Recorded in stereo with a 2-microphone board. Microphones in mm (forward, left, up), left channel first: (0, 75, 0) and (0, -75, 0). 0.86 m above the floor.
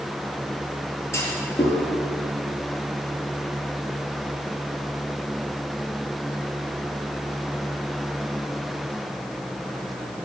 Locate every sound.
1.1 s a clunk: 15° left (ahead or behind), 5 m